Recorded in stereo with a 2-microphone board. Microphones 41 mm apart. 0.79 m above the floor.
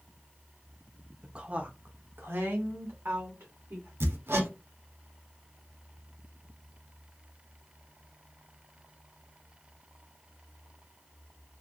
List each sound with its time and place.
1.2 s a woman speaking: 20° right (ahead or behind), 0.6 m; by 3.9 s 70° right (ahead or behind), 1.6 m
4.0 s hammering: 75° right (ahead or behind), 0.8 m